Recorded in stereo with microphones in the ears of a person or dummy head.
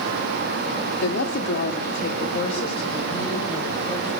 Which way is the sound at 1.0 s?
65° left (ahead or behind).